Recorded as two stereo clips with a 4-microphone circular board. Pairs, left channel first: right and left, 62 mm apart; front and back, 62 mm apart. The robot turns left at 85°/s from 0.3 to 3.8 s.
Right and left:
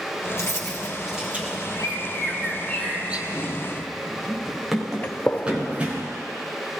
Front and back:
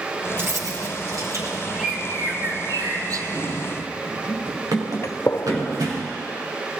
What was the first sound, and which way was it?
Keys jangling, 125° right.